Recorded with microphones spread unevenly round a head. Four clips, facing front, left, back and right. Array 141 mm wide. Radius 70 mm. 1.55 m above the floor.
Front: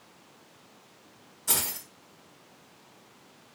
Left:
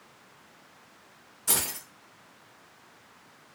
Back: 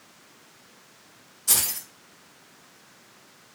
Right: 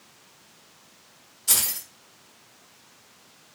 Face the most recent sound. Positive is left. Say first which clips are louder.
# left 2 dB, even
turn(degrees=50)